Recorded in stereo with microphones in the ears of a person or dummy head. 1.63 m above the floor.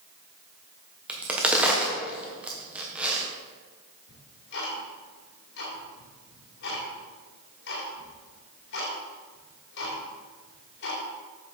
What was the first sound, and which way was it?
A crack, 10° right (ahead or behind).